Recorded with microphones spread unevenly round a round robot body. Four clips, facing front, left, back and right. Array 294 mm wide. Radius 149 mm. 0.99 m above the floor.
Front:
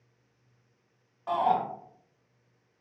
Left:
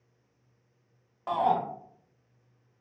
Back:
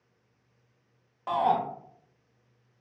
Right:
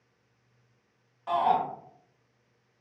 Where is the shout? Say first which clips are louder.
Right 1 dB, back 1 dB; 145° left, 1.1 m.